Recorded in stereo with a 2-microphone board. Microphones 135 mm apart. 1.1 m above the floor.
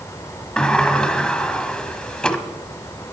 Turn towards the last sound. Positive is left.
turn(degrees=5)  # may be behind; listen again after turning